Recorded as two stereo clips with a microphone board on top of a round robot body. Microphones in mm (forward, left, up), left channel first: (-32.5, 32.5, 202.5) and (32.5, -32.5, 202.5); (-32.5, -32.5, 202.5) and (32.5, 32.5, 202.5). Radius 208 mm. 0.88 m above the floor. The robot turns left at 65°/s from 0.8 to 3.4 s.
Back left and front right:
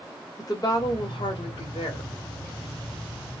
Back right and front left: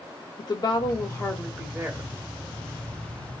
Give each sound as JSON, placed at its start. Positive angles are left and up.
{"t": 0.4, "sound": "a woman speaking", "azimuth_deg": -175, "distance_m": 1.1}